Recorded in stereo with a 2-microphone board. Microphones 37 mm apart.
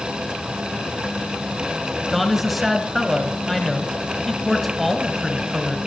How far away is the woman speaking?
About 1.6 m.